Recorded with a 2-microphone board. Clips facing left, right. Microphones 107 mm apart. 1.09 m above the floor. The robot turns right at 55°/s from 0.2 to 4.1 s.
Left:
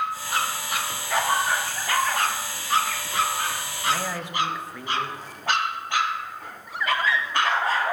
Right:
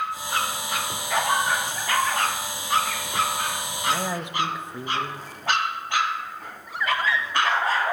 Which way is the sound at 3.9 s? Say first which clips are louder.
Right 1 dB; 5° right (ahead or behind).